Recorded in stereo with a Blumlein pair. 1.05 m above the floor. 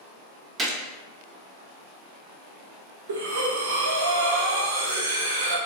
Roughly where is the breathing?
Ahead right.